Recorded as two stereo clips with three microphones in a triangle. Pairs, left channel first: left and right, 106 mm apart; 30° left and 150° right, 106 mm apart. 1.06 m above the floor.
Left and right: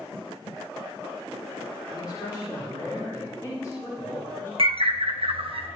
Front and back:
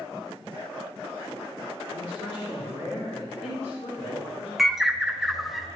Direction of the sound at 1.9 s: 40° left.